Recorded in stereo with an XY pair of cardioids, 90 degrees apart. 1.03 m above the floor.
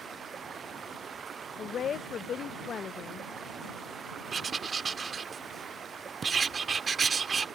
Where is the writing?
45° right.